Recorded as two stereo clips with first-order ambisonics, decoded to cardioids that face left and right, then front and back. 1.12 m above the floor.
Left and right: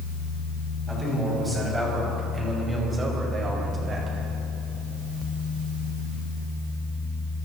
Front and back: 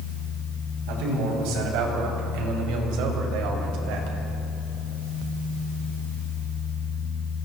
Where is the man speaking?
175° right, 7 m; by 4.2 s 160° right, 5 m.